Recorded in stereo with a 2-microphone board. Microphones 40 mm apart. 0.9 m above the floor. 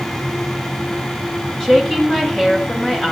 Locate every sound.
1.6 s a woman speaking: 15° left (ahead or behind), 3.5 m